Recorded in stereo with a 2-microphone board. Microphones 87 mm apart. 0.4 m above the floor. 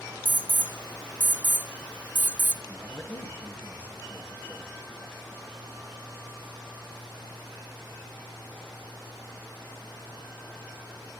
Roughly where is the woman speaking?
Left.